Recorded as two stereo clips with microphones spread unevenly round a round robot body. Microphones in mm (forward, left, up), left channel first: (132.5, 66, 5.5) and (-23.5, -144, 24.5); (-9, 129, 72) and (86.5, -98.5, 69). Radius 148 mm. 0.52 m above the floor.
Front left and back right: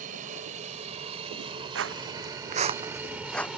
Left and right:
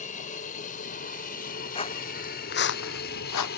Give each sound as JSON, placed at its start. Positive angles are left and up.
{"t": 0.0, "sound": "an aircraft", "azimuth_deg": 170}
{"t": 1.8, "sound": "footsteps", "azimuth_deg": -175}